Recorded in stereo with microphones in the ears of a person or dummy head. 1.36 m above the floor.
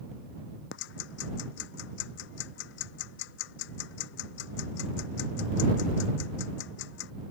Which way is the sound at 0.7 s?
70° left (ahead or behind).